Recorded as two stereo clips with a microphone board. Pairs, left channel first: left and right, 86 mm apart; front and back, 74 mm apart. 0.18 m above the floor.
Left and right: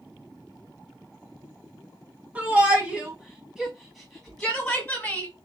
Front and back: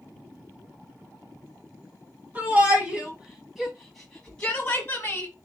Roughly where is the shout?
Behind right.